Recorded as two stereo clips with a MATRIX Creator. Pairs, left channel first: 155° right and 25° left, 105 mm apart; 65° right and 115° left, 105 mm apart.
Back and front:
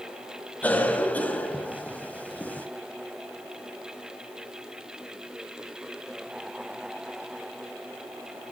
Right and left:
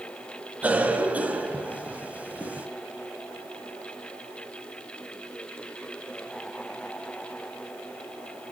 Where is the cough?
160° left, 1.3 m.